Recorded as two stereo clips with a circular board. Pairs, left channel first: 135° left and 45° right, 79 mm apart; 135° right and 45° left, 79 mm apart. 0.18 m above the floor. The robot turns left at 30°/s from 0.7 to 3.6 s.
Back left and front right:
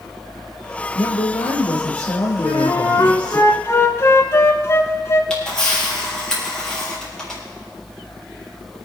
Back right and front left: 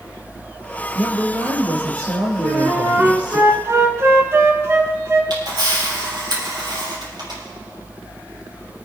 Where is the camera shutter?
50° left, 5 m.